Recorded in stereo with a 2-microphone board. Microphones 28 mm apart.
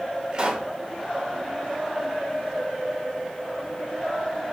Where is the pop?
35° right (ahead or behind), 1.2 m.